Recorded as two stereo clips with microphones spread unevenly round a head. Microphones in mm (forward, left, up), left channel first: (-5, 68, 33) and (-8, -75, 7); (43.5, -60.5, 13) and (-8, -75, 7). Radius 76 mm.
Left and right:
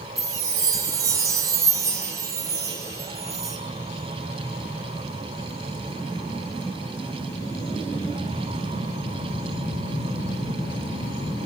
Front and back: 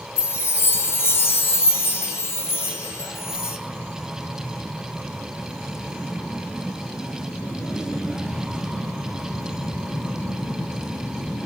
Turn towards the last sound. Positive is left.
turn(degrees=-20)